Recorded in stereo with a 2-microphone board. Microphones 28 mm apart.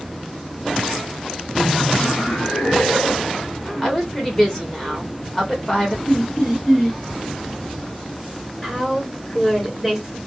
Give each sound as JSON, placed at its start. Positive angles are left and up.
{"t": 1.6, "sound": "laughter", "side_deg": -5, "distance_m": 0.7}
{"t": 3.8, "sound": "a woman speaking", "side_deg": 15, "distance_m": 1.6}
{"t": 6.1, "sound": "laughter", "side_deg": 10, "distance_m": 2.0}
{"t": 8.6, "sound": "a woman speaking", "side_deg": 0, "distance_m": 2.5}